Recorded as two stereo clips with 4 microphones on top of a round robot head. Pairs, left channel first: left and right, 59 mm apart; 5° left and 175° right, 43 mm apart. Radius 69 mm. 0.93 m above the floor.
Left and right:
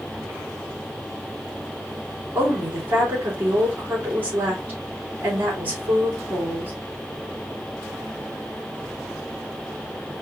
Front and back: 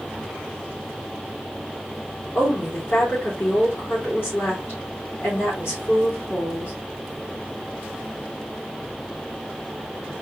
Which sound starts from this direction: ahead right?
A woman speaking, at 2.4 s.